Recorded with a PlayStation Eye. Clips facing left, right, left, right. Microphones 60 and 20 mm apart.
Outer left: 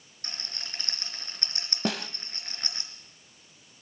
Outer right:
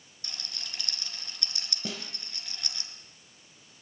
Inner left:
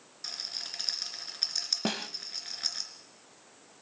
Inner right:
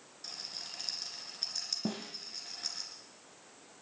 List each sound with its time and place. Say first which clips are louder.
0.2 s a rattle: outer left 2 dB, inner left 5 dB; 40° left (ahead or behind), 3 m
1.9 s a snare drum: outer left 9 dB, inner left 5 dB; 90° left, 1.0 m